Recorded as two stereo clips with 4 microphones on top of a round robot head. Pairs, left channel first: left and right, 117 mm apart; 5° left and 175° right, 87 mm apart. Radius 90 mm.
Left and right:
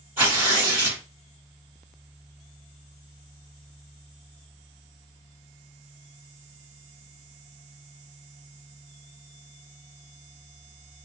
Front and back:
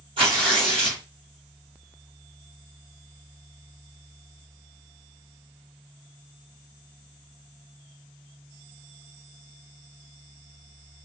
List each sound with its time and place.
0.2 s tearing paper: 165° right, 1.6 m